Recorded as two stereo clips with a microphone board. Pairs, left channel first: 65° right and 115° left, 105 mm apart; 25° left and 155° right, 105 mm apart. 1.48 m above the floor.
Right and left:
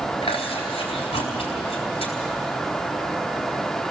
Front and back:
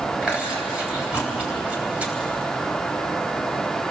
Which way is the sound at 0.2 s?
80° right.